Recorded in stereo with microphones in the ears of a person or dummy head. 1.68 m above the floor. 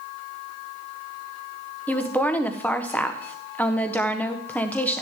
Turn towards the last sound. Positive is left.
turn(degrees=5)  # may be behind; listen again after turning